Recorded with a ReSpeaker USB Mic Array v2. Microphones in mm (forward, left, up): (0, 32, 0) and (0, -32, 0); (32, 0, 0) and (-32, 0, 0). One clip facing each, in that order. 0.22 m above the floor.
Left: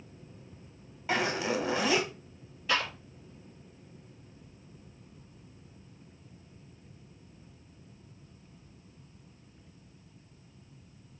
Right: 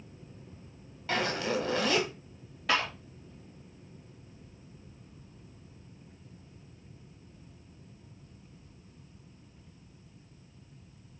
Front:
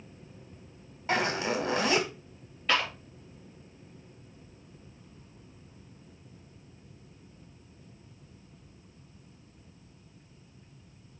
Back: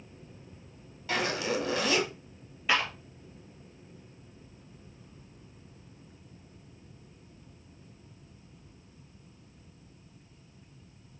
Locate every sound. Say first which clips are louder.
1.1 s a zipper: left 1 dB, front 2 dB; 25° left, 1.3 m
2.7 s a clap: right 1 dB, even; 100° right, 3.5 m